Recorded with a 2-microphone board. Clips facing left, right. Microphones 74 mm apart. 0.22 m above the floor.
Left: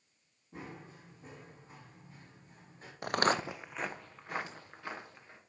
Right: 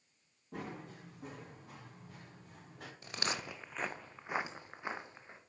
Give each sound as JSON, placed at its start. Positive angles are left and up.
{"t": 0.5, "sound": "running footsteps", "side_deg": -70, "distance_m": 5.5}
{"t": 3.0, "sound": "footsteps", "side_deg": 70, "distance_m": 0.5}